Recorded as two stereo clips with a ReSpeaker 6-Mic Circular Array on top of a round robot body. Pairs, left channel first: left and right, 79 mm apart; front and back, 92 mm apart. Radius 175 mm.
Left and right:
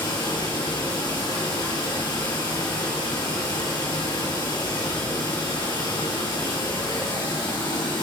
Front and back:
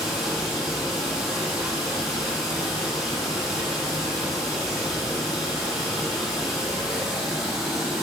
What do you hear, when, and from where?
0.0 s running water: 95° left, 1.4 m